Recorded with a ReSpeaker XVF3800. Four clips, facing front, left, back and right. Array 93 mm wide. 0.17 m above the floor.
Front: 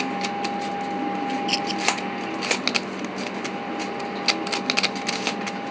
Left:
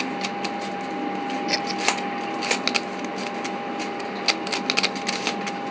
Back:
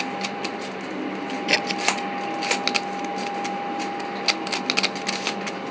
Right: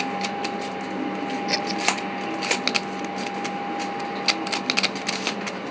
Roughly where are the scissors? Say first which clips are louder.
Even, back 2 dB; behind.